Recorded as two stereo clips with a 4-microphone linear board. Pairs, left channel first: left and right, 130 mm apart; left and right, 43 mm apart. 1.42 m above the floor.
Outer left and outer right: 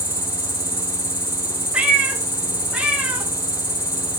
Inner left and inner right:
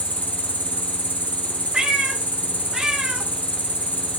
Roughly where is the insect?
Left.